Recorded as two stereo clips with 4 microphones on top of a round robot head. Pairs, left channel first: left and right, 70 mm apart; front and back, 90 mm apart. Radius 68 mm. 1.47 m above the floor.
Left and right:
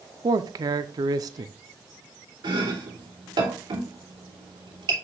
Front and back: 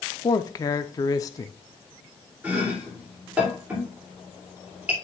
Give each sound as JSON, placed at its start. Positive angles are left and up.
{"t": 0.2, "sound": "a man speaking", "azimuth_deg": -55, "distance_m": 0.6}
{"t": 2.4, "sound": "chopping", "azimuth_deg": -105, "distance_m": 2.5}